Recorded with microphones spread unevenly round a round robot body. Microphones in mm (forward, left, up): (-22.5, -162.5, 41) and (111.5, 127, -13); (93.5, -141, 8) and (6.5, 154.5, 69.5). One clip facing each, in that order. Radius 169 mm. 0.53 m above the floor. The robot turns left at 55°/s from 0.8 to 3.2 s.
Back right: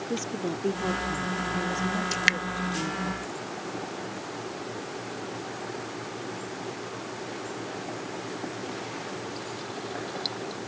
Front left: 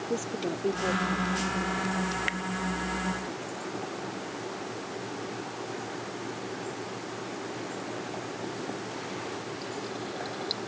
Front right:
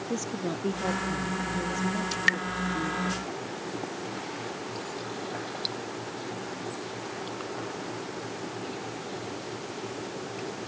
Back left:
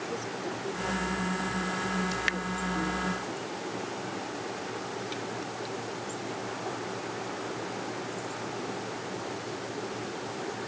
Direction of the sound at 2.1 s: 140° right.